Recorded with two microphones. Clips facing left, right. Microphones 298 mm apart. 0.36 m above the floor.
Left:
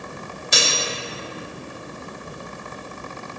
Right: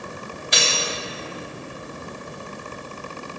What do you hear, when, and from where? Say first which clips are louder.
0.5 s cutlery clinking: left 1 dB; 55° left (ahead or behind), 1.0 m